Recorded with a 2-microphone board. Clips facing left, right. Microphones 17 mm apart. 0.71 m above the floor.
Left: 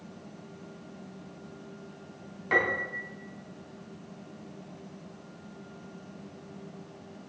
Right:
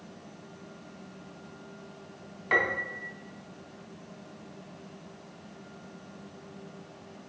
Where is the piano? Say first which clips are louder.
Even; 15° right (ahead or behind), 0.7 m.